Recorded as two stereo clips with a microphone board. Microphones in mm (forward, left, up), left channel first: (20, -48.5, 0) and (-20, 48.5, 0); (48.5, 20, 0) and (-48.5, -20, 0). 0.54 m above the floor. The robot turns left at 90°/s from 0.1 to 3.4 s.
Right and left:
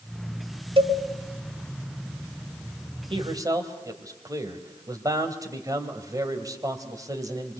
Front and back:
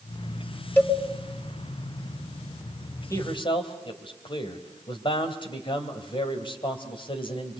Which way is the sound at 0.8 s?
90° left.